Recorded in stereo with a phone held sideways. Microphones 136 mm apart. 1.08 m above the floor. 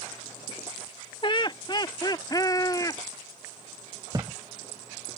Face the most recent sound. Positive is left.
turn(degrees=-30)  # may be behind; listen again after turning